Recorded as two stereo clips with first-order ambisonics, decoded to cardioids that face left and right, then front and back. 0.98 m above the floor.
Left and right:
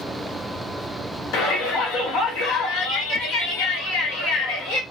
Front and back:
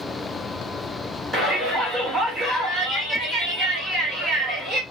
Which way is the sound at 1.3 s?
90° left.